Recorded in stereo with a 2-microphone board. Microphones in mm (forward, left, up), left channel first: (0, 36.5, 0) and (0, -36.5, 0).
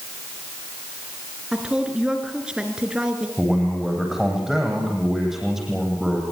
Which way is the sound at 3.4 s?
5° right (ahead or behind).